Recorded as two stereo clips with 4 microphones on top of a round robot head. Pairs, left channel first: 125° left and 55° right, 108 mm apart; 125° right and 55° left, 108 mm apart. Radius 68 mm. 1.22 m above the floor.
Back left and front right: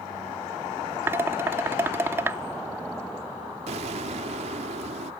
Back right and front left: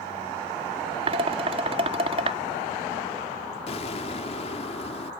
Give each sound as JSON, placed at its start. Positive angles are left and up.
{"t": 1.1, "sound": "dishes clattering", "azimuth_deg": 15}
{"t": 3.7, "sound": "an explosion", "azimuth_deg": -90}